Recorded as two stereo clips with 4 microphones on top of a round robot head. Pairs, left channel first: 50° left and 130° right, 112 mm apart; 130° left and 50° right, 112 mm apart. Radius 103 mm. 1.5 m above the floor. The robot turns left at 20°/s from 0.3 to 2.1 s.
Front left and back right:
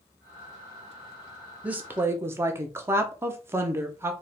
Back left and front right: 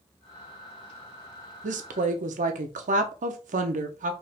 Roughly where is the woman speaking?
Ahead right.